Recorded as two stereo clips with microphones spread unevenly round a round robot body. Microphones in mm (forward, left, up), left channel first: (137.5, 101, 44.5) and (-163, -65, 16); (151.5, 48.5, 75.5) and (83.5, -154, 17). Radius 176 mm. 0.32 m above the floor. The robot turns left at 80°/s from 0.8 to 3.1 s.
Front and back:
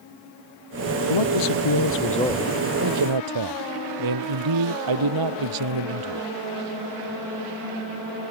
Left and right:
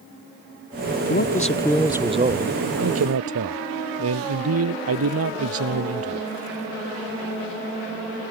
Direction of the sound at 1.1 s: 45° left.